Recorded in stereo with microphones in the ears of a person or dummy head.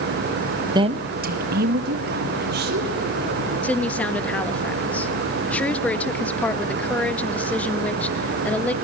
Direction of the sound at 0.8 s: 20° right (ahead or behind).